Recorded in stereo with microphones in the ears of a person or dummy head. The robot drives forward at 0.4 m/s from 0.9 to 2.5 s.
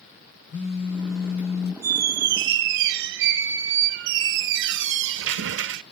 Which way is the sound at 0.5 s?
55° left (ahead or behind).